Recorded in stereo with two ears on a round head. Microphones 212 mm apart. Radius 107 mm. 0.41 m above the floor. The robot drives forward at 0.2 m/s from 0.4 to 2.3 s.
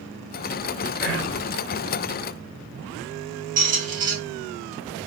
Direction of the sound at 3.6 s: 35° right (ahead or behind).